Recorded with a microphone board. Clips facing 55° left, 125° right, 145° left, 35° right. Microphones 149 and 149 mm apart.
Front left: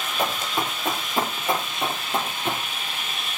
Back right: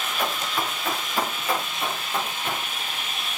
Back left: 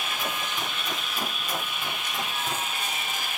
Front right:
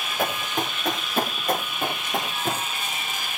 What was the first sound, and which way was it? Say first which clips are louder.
Running footsteps: front left 2 dB, front right 9 dB; 10° right.